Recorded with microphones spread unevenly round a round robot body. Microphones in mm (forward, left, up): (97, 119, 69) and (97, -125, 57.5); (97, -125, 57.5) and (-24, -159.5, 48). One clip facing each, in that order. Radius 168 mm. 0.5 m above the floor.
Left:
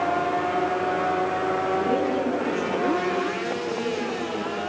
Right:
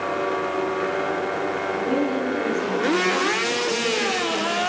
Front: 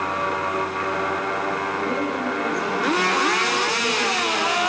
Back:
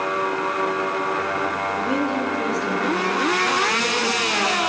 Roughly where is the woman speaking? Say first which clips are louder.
Right 3 dB, back 2 dB; behind.